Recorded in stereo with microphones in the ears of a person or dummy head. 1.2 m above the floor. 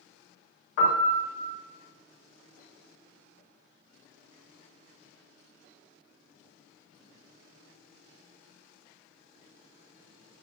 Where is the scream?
I don't hear a scream.